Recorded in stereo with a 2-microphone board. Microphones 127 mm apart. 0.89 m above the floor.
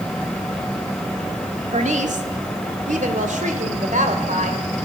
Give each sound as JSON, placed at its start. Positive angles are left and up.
{"t": 1.7, "sound": "a woman speaking", "side_deg": -65, "distance_m": 1.9}